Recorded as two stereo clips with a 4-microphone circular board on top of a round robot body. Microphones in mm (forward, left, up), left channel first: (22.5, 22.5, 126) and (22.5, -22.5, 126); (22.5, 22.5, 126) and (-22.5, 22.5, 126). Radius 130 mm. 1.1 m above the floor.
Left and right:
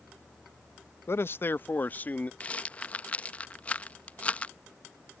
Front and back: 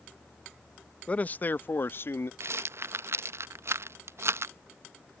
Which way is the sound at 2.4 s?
155° left.